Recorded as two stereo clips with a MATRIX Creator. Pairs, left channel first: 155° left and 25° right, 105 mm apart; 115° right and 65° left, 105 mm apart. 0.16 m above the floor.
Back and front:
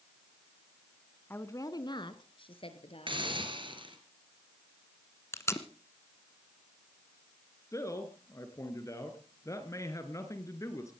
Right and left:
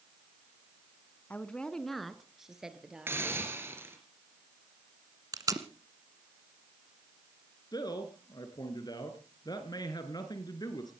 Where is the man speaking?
150° right, 2.5 m.